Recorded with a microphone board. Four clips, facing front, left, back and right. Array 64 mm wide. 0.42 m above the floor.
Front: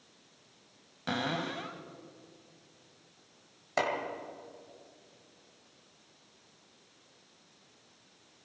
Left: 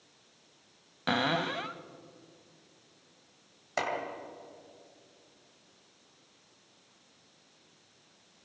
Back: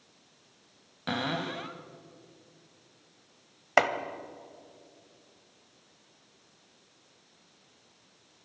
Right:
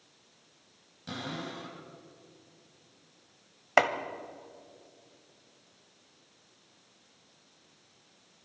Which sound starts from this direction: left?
A cupboard door, at 1.1 s.